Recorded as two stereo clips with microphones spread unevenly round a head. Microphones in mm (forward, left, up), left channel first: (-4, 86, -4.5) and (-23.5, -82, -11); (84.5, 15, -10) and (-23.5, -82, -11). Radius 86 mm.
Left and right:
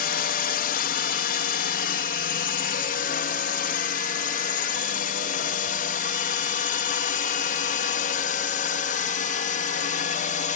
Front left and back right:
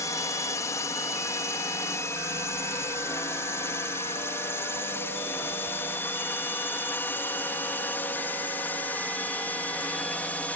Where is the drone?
115° left; by 10.6 s 125° left.